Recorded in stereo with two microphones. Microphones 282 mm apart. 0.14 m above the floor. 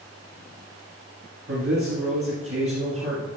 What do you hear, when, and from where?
1.5 s a man speaking: 50° right (ahead or behind), 1.6 m